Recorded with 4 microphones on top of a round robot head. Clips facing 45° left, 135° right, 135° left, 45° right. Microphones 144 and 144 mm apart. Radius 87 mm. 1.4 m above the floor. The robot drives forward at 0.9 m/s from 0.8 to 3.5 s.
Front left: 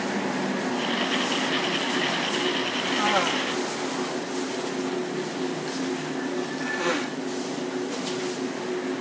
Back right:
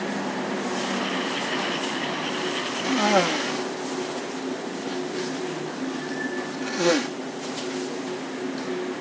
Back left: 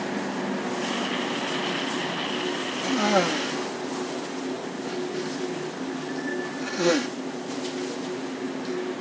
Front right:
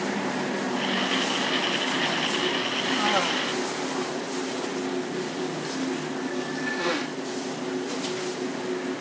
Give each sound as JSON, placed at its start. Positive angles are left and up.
{"t": 2.8, "sound": "a cough", "azimuth_deg": 175}